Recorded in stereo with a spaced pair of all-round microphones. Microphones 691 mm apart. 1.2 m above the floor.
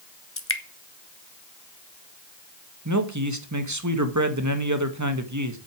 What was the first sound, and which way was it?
Dripping, 20° left (ahead or behind).